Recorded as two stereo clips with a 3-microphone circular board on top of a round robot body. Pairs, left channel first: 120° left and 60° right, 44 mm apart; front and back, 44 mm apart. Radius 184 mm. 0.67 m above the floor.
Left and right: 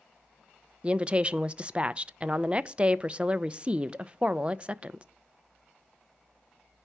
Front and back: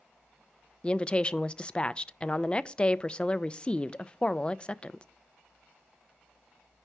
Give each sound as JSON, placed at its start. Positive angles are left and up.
{"t": 0.8, "sound": "a woman speaking", "azimuth_deg": -35, "distance_m": 0.5}